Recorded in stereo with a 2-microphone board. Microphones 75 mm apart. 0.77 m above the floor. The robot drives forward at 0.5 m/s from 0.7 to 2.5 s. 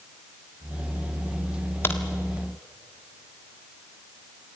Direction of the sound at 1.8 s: 30° left (ahead or behind).